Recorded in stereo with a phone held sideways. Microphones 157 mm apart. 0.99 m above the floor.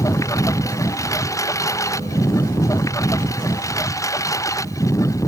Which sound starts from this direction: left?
A lawn mower, at 0.0 s.